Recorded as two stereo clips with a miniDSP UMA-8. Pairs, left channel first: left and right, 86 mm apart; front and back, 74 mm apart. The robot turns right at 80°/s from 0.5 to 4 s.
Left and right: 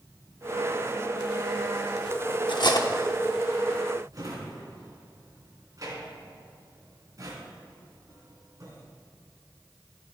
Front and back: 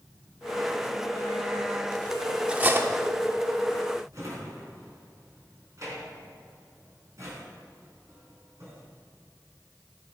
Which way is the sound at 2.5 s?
105° left.